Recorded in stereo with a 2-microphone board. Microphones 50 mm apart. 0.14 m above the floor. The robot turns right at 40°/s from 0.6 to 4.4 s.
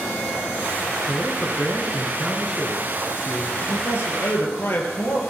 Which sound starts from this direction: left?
A man speaking, at 3.6 s.